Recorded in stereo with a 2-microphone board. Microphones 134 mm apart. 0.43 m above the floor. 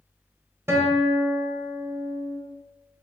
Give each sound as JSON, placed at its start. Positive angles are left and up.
{"t": 0.7, "sound": "a guitar", "side_deg": -20, "distance_m": 0.9}